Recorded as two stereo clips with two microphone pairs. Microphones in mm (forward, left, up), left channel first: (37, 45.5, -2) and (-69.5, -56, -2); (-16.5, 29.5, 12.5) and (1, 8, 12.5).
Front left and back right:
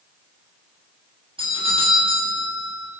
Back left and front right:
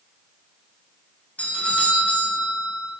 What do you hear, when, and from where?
1.4 s a doorbell: 170° left, 9.5 m